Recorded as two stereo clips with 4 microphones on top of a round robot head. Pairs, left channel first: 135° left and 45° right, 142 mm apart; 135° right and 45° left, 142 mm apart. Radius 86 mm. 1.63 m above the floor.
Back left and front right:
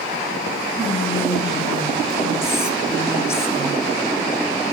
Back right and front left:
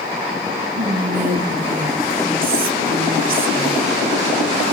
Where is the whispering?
65° left, 4.5 m.